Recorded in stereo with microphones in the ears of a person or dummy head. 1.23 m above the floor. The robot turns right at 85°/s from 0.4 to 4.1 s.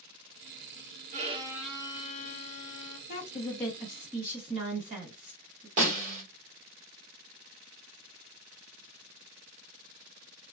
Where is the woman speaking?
45° left (ahead or behind), 1.3 m; by 5.7 s 35° right (ahead or behind), 1.3 m.